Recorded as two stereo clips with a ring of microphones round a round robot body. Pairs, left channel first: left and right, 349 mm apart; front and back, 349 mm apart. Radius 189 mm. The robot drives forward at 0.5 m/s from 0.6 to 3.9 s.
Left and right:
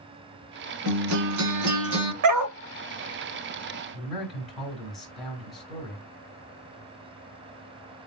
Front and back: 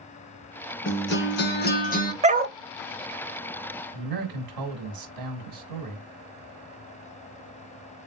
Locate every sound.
0.8 s a guitar: 55° right, 2.5 m; by 2.1 s 65° right, 2.5 m
2.2 s a dog barking: 110° right, 0.6 m; by 2.6 s 125° right, 0.7 m
3.9 s a man speaking: straight behind, 3 m